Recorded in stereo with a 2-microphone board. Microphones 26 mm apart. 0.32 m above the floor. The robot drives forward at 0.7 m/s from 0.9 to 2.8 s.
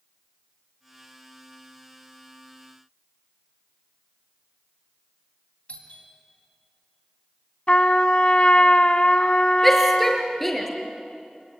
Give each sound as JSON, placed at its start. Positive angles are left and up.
{"t": 5.7, "sound": "a doorbell", "side_deg": 50, "distance_m": 3.5}
{"t": 7.7, "sound": "a trumpet", "side_deg": 40, "distance_m": 0.9}
{"t": 9.6, "sound": "a shout", "side_deg": 5, "distance_m": 5.0}